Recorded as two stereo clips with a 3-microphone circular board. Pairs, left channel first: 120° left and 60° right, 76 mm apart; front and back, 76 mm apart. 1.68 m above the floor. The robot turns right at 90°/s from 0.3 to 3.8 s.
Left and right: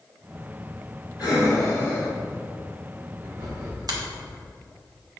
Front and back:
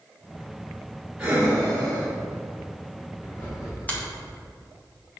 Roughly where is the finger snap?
Ahead right.